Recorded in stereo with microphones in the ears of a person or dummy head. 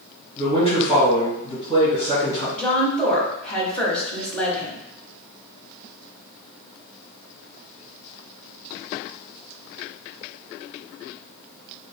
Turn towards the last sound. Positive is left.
turn(degrees=10)  # may be behind; listen again after turning